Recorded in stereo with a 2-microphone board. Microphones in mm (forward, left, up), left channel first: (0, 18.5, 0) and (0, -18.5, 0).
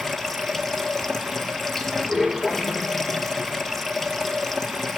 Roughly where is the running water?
Centre.